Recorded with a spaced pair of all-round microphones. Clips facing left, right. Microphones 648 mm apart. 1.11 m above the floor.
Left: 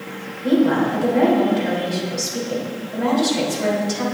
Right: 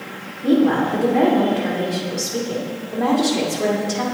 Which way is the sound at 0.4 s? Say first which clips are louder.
Right 1 dB; 90° right.